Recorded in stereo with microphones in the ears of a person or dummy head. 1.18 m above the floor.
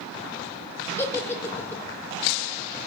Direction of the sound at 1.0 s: 15° left (ahead or behind).